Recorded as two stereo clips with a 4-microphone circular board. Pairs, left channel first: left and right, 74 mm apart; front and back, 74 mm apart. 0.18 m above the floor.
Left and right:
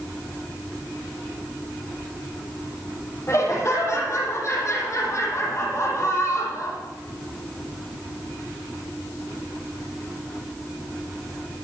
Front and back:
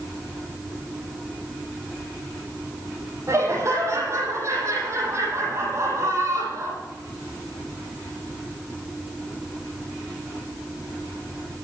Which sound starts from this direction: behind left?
Laughter, at 3.3 s.